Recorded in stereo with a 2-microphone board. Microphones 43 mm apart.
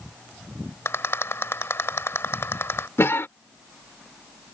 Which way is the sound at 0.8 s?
70° left (ahead or behind).